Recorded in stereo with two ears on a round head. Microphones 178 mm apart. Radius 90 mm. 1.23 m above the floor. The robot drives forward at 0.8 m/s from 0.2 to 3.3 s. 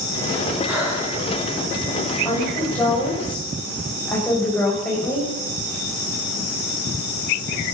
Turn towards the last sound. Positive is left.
turn(degrees=5)  # may be behind; listen again after turning